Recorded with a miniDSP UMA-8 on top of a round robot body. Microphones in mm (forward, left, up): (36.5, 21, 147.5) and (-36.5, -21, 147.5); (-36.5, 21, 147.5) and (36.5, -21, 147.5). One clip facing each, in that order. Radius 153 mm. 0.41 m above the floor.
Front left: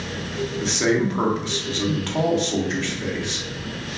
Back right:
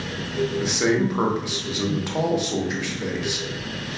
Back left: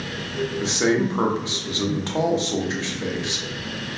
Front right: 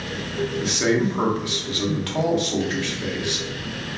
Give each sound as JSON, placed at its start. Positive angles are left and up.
{"t": 0.6, "sound": "a man speaking", "azimuth_deg": 155, "distance_m": 0.8}